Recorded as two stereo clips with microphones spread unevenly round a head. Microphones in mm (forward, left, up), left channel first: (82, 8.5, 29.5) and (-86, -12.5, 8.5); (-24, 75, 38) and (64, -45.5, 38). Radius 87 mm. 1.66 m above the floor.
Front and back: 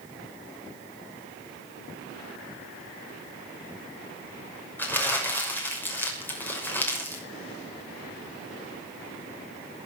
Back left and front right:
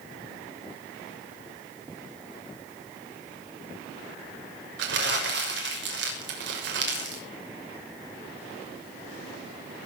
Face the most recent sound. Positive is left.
turn(degrees=-70)